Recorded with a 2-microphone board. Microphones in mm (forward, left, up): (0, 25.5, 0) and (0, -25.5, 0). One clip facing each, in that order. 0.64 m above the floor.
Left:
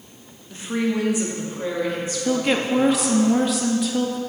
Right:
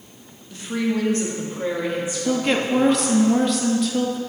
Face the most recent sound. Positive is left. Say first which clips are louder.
# even
turn(degrees=5)  # may be behind; listen again after turning